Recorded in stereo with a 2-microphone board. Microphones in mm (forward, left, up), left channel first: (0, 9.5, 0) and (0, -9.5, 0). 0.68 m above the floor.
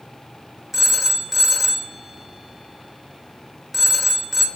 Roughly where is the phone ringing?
Centre.